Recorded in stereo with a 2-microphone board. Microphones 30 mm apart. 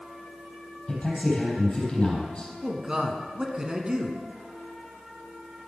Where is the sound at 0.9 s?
30° left (ahead or behind), 4 m.